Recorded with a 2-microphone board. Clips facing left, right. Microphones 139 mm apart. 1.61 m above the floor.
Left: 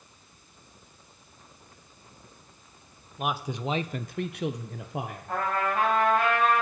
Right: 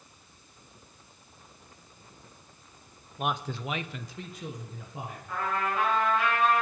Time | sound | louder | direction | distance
3.2 | a man speaking | left 1 dB | centre (ahead or behind) | 0.9 m
5.3 | a trumpet | left 2 dB | 60° left (ahead or behind) | 4.5 m